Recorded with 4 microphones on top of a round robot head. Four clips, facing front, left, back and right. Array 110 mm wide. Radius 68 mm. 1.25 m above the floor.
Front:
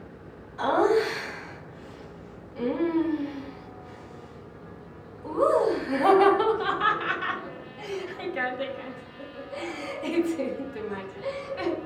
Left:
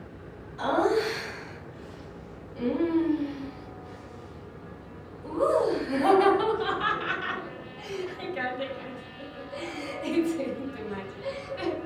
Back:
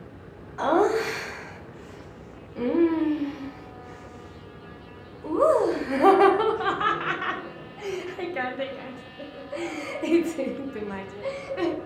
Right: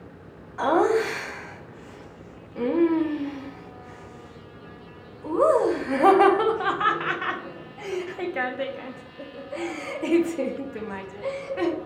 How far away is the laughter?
About 1.5 m.